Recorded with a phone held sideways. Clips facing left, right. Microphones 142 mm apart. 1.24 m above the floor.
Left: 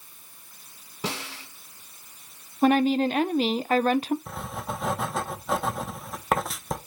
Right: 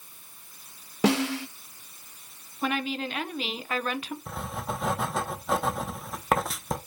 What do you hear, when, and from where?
1.0 s a snare drum: 80° right, 1.1 m
2.6 s a woman speaking: 40° left (ahead or behind), 0.6 m
4.3 s writing: centre (ahead or behind), 1.1 m